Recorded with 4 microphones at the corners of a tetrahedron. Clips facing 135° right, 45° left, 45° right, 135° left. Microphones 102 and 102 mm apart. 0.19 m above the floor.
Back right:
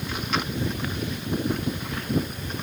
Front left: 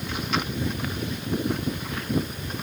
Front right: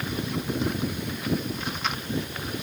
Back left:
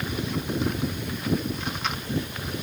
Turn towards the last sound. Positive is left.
No sound to turn to.